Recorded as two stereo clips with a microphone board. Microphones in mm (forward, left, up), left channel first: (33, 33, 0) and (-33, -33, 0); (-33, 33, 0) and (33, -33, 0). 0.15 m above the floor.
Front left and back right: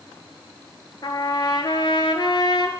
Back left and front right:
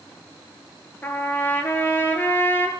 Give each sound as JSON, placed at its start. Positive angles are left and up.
{"t": 1.0, "sound": "a trumpet", "azimuth_deg": 70, "distance_m": 0.7}